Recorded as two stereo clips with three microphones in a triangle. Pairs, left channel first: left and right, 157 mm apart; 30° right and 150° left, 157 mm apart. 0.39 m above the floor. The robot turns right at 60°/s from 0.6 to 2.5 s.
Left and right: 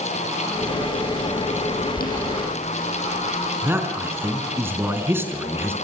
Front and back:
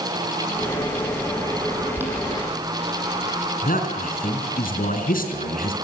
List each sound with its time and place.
1.9 s boiling: 70° left, 6.5 m; by 3.5 s 105° left, 6.5 m
3.6 s a man speaking: 15° right, 4 m